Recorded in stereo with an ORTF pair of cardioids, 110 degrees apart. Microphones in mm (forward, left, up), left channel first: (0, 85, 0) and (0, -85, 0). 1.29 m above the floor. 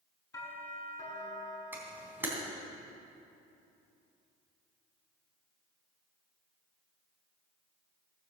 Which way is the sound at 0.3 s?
20° left.